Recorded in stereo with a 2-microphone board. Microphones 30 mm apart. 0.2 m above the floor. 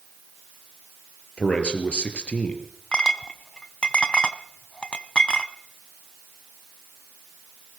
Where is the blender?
No blender in this recording.